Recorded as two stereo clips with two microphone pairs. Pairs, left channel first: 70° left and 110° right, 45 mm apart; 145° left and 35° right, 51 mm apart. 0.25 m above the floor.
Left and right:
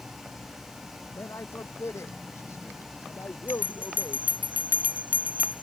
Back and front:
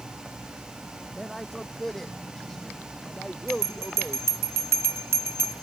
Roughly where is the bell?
Ahead right.